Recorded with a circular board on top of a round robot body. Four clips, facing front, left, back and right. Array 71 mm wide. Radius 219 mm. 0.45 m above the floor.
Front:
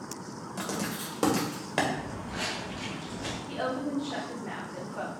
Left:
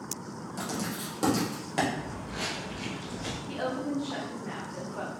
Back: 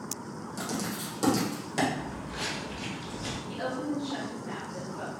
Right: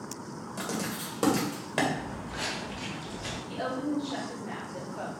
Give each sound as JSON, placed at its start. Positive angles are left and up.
{"t": 0.6, "sound": "writing", "azimuth_deg": -30, "distance_m": 1.4}
{"t": 2.0, "sound": "footsteps", "azimuth_deg": -5, "distance_m": 0.6}
{"t": 3.5, "sound": "a woman speaking", "azimuth_deg": 35, "distance_m": 1.6}